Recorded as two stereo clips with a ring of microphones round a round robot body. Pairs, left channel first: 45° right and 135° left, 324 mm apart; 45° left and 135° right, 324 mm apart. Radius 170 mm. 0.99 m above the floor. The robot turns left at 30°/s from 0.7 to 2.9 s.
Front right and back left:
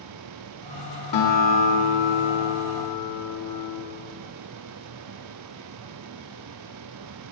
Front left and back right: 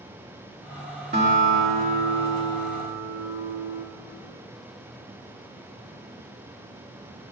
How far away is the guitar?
About 3 m.